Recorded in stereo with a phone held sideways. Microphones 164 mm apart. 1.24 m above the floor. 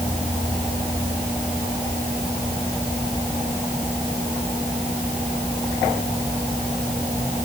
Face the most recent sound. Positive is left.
No sound to turn to.